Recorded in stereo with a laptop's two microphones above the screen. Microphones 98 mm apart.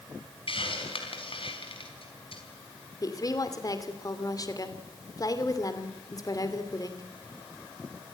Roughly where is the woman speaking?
Left.